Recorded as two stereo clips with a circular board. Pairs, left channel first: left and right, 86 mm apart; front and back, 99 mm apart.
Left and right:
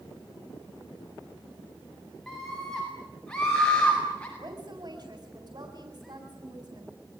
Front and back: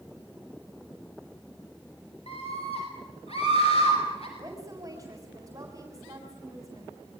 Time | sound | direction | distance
2.3 | a scream | 5° left | 7.5 m
4.4 | a woman speaking | 125° right | 4 m